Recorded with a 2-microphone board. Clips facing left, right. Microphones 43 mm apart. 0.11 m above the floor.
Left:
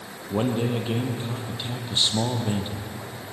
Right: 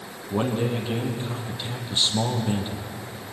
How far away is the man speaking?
About 3.5 m.